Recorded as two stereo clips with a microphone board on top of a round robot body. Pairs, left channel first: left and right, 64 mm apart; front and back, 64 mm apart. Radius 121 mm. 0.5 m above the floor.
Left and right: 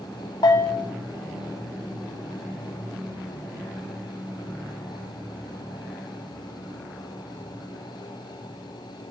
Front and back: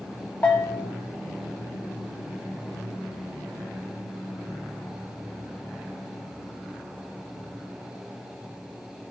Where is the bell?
70° left, 0.5 m.